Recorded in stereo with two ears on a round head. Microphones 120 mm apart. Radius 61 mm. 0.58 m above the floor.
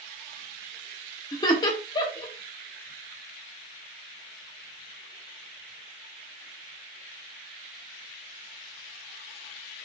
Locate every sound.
1.3 s laughter: 30° left (ahead or behind), 1.2 m